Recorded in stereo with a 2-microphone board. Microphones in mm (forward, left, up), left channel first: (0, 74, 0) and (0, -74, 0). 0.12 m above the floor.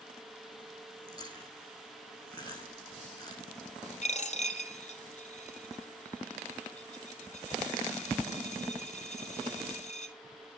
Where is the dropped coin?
55° left (ahead or behind), 1.3 m.